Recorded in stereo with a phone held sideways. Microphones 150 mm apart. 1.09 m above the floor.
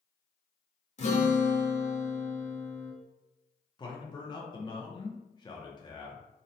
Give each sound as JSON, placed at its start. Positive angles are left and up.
{"t": 1.0, "sound": "a guitar", "side_deg": 45, "distance_m": 0.7}
{"t": 3.8, "sound": "a man speaking", "side_deg": 25, "distance_m": 0.6}